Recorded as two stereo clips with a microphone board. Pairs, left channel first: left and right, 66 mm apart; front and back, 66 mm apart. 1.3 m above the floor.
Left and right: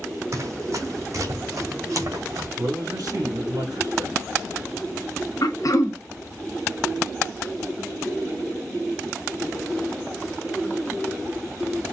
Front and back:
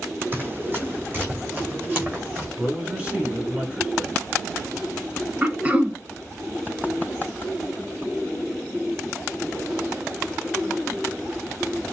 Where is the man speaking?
115° right, 4.5 m.